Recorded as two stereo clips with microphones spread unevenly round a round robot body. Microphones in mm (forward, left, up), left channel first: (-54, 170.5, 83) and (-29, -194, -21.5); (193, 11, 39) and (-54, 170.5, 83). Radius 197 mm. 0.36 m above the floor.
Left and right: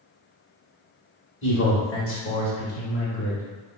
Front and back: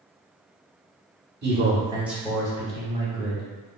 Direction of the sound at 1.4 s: 145° left.